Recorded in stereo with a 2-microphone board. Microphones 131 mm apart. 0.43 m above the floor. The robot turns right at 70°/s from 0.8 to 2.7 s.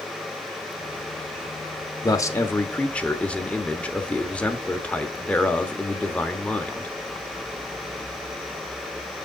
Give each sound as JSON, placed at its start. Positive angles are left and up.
{"t": 2.0, "sound": "a man speaking", "azimuth_deg": 115, "distance_m": 1.0}